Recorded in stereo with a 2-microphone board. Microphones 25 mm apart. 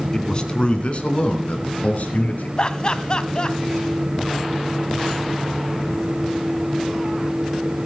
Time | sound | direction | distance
0.1 | a man speaking | 30° left (ahead or behind) | 2.5 m
2.6 | laughter | 35° left (ahead or behind) | 1.2 m